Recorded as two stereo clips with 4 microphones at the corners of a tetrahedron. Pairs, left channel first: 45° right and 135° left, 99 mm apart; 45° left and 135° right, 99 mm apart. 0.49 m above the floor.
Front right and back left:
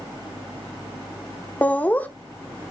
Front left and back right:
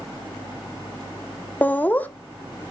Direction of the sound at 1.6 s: Straight ahead.